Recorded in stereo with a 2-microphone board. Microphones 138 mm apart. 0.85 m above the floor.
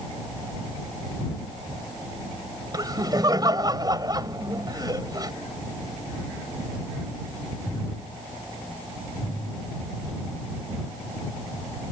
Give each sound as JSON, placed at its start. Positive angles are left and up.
{"t": 2.7, "sound": "laughter", "side_deg": -30}